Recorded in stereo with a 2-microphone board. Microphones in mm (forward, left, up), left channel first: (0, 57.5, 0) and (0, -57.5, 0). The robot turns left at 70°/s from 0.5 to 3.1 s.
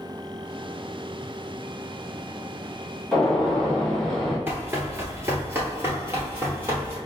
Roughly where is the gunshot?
Centre.